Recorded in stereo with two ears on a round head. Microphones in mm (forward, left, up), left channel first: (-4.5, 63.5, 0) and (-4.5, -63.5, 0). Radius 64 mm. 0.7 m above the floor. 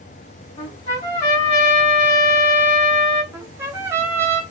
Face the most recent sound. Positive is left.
turn(degrees=-15)  # may be behind; listen again after turning